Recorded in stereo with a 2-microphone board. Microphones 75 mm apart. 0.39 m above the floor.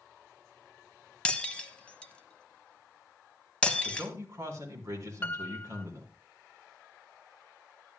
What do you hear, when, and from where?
1.2 s breaking glass: 15° left (ahead or behind), 1.1 m
3.9 s a man speaking: 40° right (ahead or behind), 4 m
5.2 s a piano: 25° left (ahead or behind), 0.6 m